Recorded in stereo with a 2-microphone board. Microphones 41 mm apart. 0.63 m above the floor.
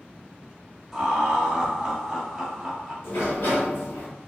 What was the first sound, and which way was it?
Laughter, 5° right (ahead or behind).